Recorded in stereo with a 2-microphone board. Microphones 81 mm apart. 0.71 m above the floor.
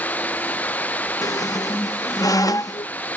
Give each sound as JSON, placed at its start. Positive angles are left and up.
{"t": 0.0, "sound": "running water", "side_deg": 20}
{"t": 1.2, "sound": "a squeak", "side_deg": 45}